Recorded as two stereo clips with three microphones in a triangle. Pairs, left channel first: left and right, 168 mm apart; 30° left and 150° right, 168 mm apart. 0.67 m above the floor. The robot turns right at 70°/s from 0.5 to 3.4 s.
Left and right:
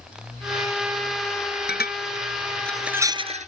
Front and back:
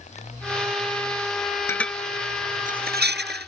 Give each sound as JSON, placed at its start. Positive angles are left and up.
{"t": 1.7, "sound": "dishes clattering", "azimuth_deg": 105}